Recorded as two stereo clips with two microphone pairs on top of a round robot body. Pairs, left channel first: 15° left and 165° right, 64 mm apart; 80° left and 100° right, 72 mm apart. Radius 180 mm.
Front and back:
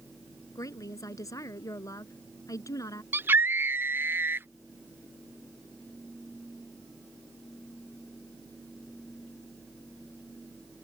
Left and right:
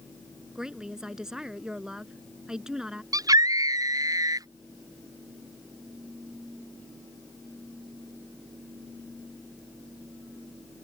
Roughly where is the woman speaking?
Ahead.